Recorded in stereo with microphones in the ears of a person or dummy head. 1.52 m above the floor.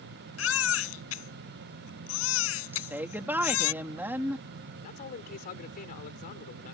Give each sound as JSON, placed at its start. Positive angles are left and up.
{"t": 0.4, "sound": "a baby crying", "side_deg": 85}
{"t": 2.7, "sound": "a woman speaking", "side_deg": -10}
{"t": 4.8, "sound": "a man speaking", "side_deg": 50}